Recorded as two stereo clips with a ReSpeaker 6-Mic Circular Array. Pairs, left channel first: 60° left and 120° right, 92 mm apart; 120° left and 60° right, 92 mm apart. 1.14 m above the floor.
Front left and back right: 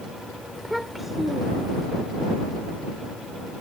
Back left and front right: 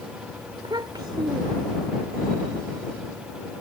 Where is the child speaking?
30° right.